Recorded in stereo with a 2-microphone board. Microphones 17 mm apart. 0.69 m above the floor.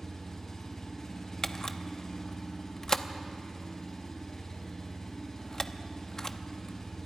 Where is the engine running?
30° left (ahead or behind), 5 m.